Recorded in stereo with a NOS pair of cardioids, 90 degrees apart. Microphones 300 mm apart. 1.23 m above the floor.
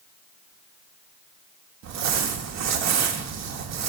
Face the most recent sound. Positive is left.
turn(degrees=-60)